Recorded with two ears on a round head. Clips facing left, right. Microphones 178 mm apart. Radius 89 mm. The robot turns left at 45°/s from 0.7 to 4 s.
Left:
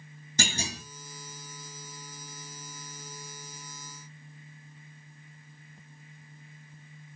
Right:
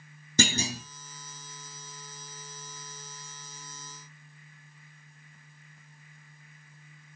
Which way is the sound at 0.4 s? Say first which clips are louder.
Right 6 dB; 70° right (ahead or behind).